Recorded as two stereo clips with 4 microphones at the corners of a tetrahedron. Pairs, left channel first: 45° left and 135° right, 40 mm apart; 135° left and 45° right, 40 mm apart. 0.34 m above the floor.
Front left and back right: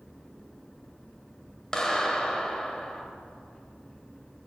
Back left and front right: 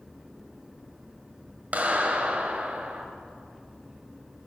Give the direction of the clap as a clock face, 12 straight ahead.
1 o'clock.